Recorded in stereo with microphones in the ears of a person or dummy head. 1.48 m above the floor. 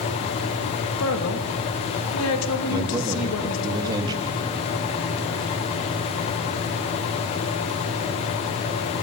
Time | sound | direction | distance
1.0 | a man speaking | 85° left | 3 m
2.7 | a man speaking | 25° right (ahead or behind) | 3 m